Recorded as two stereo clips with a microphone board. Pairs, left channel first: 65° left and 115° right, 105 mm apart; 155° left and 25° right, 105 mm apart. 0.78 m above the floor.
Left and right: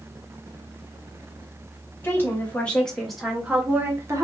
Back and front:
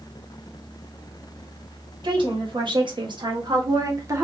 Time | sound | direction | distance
2.0 | a woman speaking | 5° left | 1.8 m